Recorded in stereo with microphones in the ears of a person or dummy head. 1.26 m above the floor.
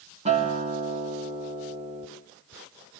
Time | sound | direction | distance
0.2 | a guitar | 35° right (ahead or behind) | 2.5 m